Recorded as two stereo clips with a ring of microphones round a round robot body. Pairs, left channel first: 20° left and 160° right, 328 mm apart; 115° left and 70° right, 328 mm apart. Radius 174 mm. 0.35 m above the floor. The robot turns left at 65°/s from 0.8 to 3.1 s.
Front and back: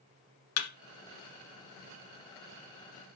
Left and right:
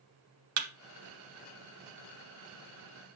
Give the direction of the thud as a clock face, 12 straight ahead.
1 o'clock.